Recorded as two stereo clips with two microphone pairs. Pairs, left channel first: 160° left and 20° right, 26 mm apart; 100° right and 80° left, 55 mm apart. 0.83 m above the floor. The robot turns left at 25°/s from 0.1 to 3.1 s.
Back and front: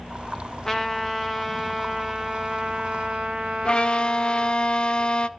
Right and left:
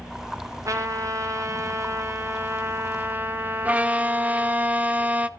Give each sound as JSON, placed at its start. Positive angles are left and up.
{"t": 0.7, "sound": "a trumpet", "azimuth_deg": 90, "distance_m": 1.9}
{"t": 3.6, "sound": "a violin", "azimuth_deg": 135, "distance_m": 0.7}